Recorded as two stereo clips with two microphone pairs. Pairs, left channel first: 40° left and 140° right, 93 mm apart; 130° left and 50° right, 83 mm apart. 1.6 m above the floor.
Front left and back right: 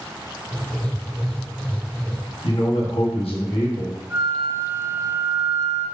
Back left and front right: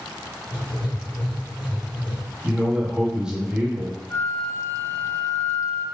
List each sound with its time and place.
0.5 s writing: 110° left, 1.2 m
2.4 s a man speaking: 30° left, 1.4 m
4.1 s a flute: 160° left, 1.0 m